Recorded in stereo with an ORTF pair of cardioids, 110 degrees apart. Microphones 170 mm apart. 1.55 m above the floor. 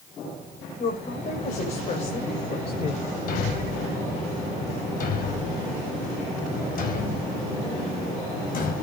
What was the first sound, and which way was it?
A woman speaking, 50° left.